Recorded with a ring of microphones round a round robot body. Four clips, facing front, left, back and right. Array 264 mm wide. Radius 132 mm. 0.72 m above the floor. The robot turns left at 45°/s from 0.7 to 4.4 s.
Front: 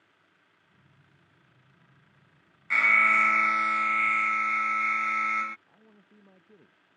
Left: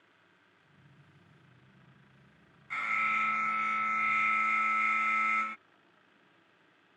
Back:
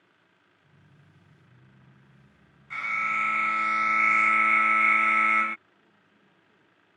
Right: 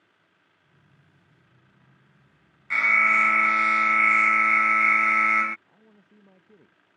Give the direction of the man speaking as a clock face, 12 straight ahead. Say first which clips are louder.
Right 7 dB, front 4 dB; 2 o'clock.